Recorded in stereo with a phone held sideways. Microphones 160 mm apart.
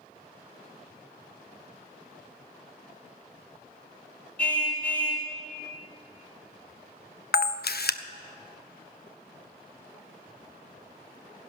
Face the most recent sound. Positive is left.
turn(degrees=80)